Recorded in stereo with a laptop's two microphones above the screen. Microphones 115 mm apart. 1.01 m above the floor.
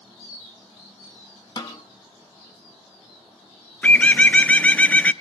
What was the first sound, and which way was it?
A snare drum, 35° left (ahead or behind).